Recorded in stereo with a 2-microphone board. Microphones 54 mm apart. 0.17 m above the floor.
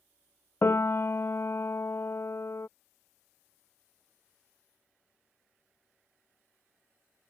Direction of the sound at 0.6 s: 50° left (ahead or behind).